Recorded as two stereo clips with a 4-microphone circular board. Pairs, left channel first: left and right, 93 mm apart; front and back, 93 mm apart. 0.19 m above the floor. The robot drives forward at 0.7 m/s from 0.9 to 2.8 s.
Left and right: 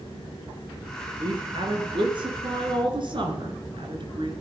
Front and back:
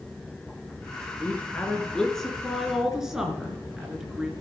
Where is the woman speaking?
70° right, 2.5 m; by 4.3 s 95° right, 2.5 m.